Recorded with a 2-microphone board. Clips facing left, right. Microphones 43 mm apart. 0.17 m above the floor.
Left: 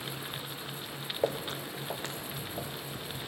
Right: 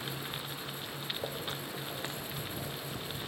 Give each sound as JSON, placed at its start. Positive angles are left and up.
{"t": 1.2, "sound": "footsteps", "side_deg": 70, "distance_m": 0.6}